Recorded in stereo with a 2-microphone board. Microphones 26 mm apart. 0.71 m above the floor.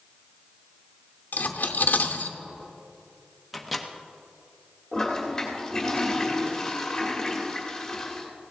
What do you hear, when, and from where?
1.3 s cutlery clinking: 90° left, 0.7 m
3.5 s a microwave: centre (ahead or behind), 0.8 m
4.9 s a toilet flushing: 15° left (ahead or behind), 1.8 m